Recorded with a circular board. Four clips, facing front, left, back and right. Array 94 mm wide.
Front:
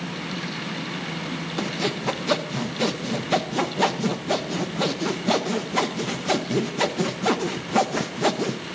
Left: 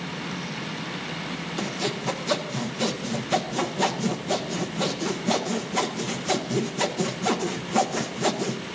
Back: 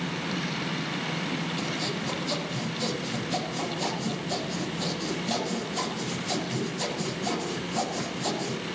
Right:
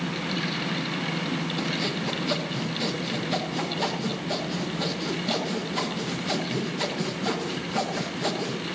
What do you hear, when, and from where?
1.6 s sawing: 15° left, 0.9 m